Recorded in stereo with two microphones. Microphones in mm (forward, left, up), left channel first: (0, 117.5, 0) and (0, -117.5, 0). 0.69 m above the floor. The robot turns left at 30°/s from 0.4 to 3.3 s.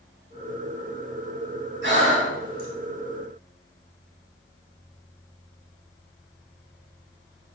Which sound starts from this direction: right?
Breathing, at 1.8 s.